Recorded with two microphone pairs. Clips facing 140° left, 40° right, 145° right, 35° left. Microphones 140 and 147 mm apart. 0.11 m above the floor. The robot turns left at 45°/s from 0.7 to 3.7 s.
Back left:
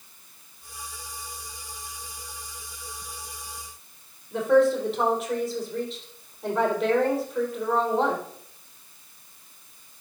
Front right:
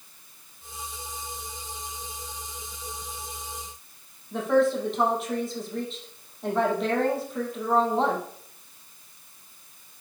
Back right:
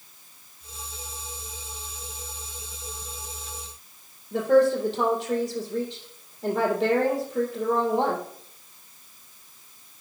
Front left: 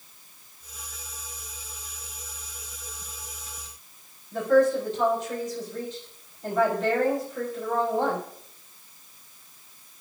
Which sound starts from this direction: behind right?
A woman speaking, at 4.3 s.